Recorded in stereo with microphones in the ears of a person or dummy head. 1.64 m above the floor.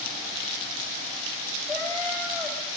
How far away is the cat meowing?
About 5.5 m.